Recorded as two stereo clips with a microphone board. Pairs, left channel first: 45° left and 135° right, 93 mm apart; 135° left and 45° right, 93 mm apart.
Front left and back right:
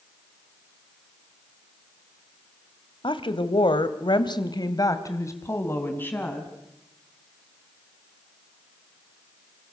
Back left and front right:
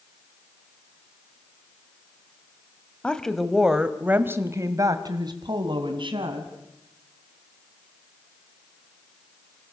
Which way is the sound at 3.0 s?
55° left.